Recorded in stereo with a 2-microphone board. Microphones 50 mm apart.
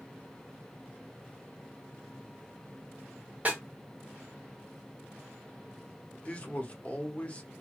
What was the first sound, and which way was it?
A snare drum, 30° right (ahead or behind).